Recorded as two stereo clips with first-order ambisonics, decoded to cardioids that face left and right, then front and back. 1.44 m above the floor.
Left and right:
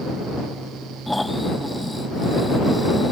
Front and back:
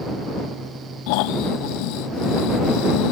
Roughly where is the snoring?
Ahead.